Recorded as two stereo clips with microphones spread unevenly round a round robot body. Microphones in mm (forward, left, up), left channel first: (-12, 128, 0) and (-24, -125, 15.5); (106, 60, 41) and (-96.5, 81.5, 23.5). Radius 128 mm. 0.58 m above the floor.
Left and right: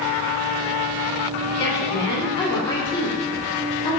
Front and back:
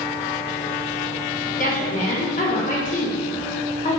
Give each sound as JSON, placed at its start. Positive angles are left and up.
{"t": 1.6, "sound": "a woman speaking", "azimuth_deg": 25, "distance_m": 1.2}